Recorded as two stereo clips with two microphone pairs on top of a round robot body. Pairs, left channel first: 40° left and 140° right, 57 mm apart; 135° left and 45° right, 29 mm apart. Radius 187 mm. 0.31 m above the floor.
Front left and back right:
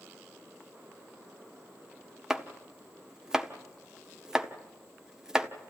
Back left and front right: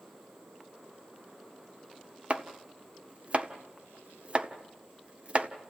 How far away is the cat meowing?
No cat meowing in this recording.